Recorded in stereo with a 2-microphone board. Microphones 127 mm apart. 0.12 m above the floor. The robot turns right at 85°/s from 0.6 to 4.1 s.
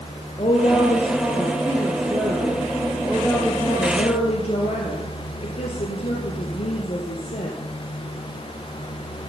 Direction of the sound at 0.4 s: 125° left.